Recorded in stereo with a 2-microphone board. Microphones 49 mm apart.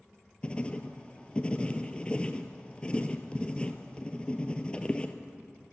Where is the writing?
25° left (ahead or behind), 0.7 m.